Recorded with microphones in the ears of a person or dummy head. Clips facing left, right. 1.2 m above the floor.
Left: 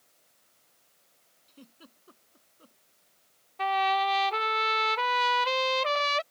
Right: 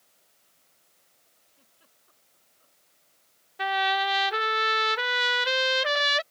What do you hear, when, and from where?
1.5 s a giggle: 80° left
3.6 s a trumpet: 15° right (ahead or behind)